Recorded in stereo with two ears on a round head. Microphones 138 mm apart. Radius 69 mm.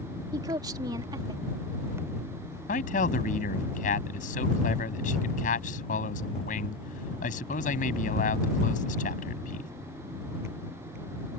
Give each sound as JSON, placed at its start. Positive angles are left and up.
{"t": 0.3, "sound": "a woman speaking", "side_deg": -25}
{"t": 2.7, "sound": "a man speaking", "side_deg": 55}